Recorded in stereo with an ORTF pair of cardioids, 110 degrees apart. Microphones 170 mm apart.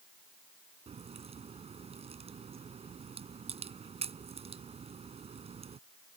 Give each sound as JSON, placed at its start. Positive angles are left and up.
{"t": 0.9, "sound": "a crack", "azimuth_deg": -35}